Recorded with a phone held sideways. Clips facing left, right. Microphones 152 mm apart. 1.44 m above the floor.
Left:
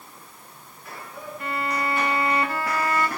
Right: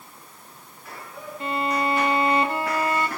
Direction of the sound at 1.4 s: 20° right (ahead or behind).